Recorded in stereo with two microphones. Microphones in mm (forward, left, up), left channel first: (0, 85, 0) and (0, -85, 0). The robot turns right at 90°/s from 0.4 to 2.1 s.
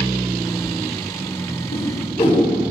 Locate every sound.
1.7 s a whoosh: 70° left (ahead or behind), 6.5 m; by 2.4 s 30° left (ahead or behind), 6.5 m